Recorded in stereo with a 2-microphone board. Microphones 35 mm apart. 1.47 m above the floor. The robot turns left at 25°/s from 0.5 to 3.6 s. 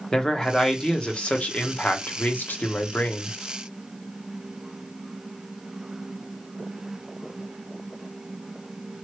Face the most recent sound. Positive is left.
turn(degrees=80)